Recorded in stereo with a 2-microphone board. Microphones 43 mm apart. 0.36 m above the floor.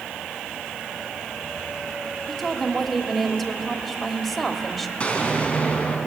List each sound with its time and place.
2.3 s a woman speaking: centre (ahead or behind), 1.4 m
5.0 s an explosion: 30° left (ahead or behind), 3.5 m